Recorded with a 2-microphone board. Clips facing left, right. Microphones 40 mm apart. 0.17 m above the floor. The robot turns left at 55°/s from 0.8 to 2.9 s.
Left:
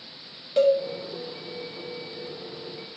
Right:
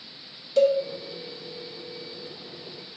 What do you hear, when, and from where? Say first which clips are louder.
0.6 s a cowbell: even; 25° left (ahead or behind), 0.6 m